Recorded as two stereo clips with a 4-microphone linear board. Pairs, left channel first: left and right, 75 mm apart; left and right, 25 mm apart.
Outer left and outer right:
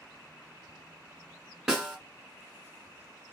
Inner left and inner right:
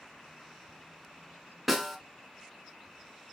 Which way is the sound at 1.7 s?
5° right (ahead or behind).